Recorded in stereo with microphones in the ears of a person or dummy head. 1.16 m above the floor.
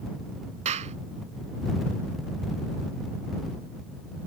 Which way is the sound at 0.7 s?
40° right (ahead or behind).